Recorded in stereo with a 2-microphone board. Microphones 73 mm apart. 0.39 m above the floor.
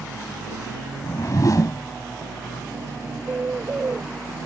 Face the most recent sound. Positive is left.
turn(degrees=-30)  # may be behind; listen again after turning